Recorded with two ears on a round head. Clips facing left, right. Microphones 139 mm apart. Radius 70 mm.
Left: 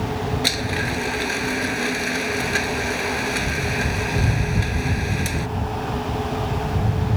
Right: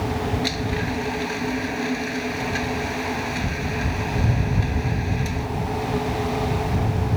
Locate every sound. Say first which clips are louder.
0.4 s a blender: even; 65° left (ahead or behind)